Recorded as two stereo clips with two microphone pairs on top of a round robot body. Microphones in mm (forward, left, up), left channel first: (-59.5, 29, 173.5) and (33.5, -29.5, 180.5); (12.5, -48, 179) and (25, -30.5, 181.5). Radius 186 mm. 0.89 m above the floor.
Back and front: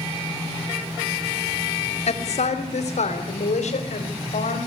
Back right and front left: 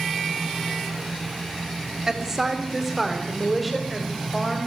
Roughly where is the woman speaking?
Behind left.